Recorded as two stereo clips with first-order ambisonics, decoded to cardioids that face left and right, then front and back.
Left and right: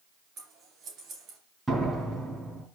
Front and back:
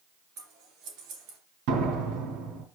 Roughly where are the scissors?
Behind right.